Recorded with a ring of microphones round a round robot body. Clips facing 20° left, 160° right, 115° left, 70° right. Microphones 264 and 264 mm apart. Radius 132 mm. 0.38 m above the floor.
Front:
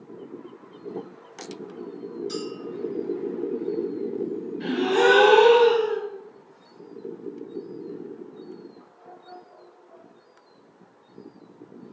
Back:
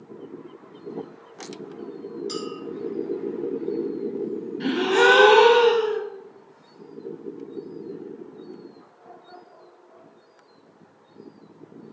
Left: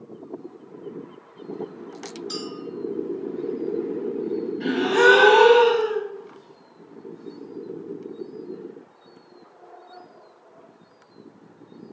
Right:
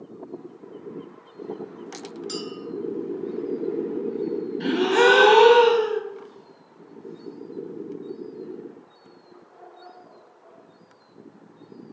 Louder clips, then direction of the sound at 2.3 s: Even, right 1 dB; 105° right.